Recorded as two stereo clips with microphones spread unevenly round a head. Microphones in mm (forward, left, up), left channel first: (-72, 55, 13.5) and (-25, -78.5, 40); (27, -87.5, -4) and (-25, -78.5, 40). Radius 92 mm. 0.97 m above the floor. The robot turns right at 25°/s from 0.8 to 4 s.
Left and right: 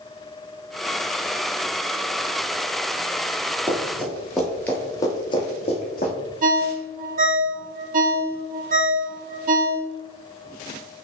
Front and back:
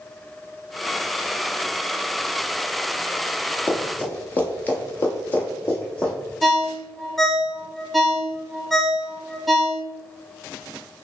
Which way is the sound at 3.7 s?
125° right.